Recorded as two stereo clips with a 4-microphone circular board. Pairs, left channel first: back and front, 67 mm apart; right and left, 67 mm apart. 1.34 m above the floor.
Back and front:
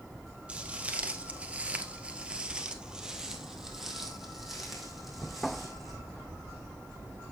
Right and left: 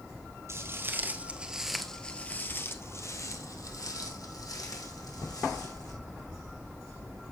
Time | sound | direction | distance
0.5 | footsteps | 65° left | 1.9 m